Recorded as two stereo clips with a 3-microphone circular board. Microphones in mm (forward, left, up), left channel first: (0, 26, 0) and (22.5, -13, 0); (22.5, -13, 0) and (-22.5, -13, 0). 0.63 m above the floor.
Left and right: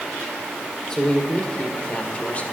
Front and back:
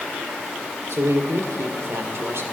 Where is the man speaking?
165° right, 2 m; by 2.4 s 175° left, 2.0 m.